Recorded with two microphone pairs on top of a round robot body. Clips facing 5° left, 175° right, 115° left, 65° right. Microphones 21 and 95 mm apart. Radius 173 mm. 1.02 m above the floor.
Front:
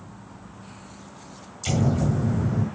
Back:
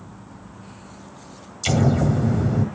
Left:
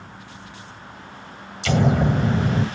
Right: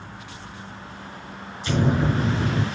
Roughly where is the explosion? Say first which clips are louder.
Back 4 dB, left 3 dB; behind left.